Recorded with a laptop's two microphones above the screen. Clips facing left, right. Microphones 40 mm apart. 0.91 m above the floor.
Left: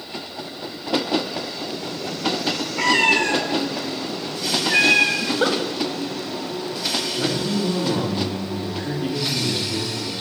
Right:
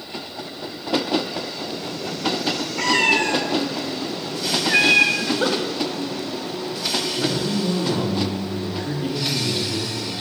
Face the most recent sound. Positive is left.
turn(degrees=15)  # may be behind; listen again after turning